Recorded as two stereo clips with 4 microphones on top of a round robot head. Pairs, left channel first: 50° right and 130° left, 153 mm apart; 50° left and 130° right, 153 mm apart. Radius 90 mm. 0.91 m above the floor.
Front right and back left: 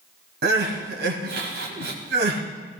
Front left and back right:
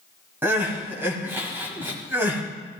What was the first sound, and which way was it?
Crying, 150° left.